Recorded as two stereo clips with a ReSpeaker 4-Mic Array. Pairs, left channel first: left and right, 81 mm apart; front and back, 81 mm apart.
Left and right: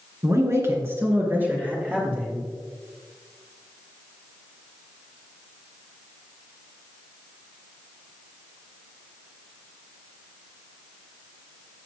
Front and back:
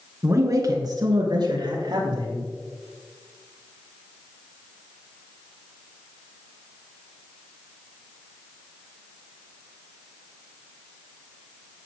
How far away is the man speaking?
About 2.5 m.